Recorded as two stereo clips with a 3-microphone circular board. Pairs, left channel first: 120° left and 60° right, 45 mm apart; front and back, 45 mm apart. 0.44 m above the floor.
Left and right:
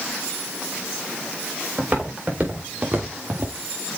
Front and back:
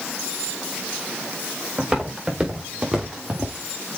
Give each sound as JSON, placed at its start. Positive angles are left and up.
{"t": 1.8, "sound": "footsteps", "azimuth_deg": -105, "distance_m": 4.0}